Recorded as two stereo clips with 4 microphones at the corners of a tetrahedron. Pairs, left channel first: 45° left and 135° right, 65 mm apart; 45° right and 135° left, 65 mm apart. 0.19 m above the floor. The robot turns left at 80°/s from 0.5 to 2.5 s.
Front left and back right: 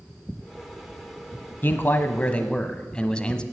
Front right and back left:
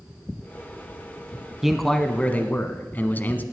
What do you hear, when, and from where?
1.6 s a man speaking: 55° left, 1.1 m; by 3.4 s 15° right, 1.1 m